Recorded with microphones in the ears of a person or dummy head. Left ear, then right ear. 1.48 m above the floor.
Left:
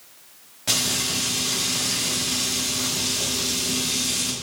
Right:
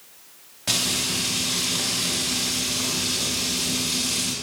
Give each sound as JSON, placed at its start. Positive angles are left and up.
{"t": 0.7, "sound": "frying", "side_deg": -5, "distance_m": 1.5}